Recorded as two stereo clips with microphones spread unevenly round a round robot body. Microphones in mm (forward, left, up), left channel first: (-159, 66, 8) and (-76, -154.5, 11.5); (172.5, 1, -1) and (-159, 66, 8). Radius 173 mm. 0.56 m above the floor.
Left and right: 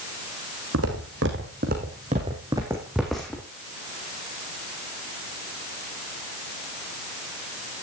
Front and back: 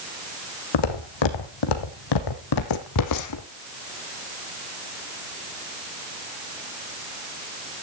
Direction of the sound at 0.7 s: 20° right.